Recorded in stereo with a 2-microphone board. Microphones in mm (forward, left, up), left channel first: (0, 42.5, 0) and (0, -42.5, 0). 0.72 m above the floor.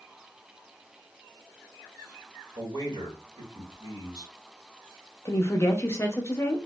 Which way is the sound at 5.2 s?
30° left (ahead or behind).